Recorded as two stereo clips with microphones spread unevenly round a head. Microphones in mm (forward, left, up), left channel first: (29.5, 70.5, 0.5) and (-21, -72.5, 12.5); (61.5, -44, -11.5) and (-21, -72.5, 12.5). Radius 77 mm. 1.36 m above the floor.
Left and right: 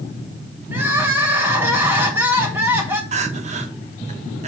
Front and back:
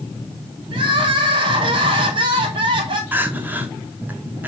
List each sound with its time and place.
0.7 s crying: 175° left, 1.6 m
3.1 s crying: 120° right, 1.1 m